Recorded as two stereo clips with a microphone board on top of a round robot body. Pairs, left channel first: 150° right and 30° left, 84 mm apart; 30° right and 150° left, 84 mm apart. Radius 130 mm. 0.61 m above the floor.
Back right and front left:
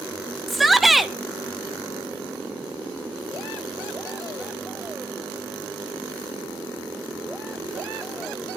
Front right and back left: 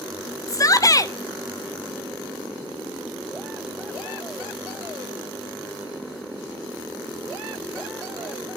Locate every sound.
0.5 s a shout: 60° right, 1.3 m